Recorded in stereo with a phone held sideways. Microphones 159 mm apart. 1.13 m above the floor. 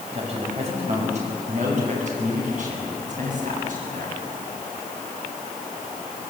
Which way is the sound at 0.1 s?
45° right (ahead or behind).